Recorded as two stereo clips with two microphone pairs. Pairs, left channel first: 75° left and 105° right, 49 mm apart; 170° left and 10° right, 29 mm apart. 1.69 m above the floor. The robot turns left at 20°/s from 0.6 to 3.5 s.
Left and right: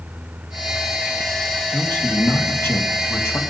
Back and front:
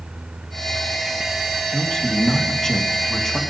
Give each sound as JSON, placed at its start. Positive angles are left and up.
{"t": 1.7, "sound": "a man speaking", "azimuth_deg": 120, "distance_m": 1.5}